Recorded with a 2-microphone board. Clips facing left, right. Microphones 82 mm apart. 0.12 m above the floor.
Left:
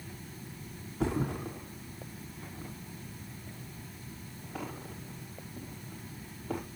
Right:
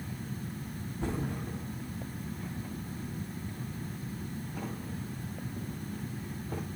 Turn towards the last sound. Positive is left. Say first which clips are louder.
# left 4 dB
turn(degrees=90)